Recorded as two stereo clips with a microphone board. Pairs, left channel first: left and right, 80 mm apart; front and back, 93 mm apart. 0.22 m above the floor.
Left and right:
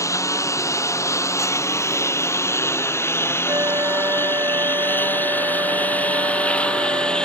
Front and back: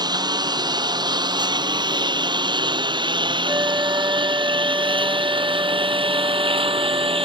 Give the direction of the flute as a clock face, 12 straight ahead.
4 o'clock.